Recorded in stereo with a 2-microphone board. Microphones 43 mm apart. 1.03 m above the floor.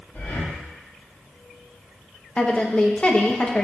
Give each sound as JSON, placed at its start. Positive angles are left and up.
{"t": 0.1, "sound": "breathing", "side_deg": 65, "distance_m": 2.5}
{"t": 2.4, "sound": "a woman speaking", "side_deg": 30, "distance_m": 1.1}